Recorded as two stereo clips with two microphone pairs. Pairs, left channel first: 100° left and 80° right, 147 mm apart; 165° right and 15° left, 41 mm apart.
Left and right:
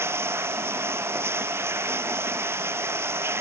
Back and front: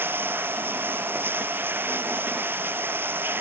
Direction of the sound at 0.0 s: 5° right.